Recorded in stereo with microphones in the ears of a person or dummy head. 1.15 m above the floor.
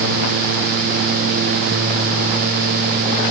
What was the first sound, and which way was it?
Only background noise.